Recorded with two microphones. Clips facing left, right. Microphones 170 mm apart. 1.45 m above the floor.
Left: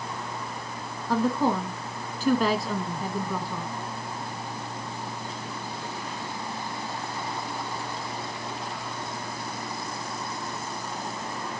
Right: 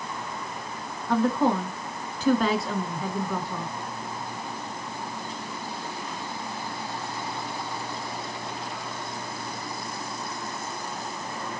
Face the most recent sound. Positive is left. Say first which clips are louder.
# right 1 dB
turn(degrees=0)  # may be behind; listen again after turning